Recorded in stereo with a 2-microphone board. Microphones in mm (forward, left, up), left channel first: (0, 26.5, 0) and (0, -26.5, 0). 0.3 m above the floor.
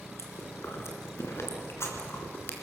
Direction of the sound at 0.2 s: 55° left (ahead or behind).